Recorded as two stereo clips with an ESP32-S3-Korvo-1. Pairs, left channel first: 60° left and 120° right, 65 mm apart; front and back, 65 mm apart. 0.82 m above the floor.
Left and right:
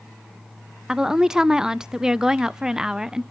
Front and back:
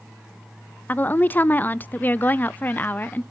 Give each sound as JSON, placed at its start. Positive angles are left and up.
{"t": 0.9, "sound": "a woman speaking", "azimuth_deg": -45, "distance_m": 0.5}